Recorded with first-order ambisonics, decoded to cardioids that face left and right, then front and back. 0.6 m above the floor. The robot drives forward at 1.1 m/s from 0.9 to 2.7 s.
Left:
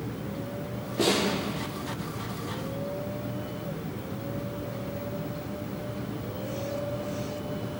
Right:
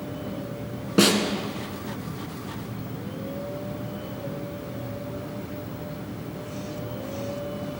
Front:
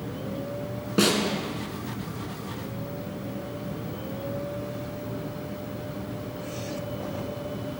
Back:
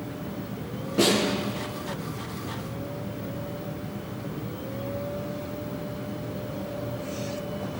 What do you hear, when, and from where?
1.0 s a snare drum: 65° right, 2.5 m; by 1.2 s 70° right, 2.5 m